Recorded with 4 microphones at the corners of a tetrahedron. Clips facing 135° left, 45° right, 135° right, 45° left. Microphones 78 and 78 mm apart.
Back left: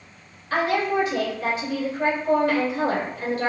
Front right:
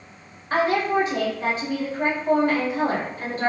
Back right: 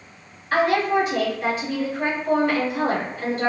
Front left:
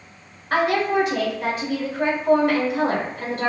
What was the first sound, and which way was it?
A woman speaking, 15° left.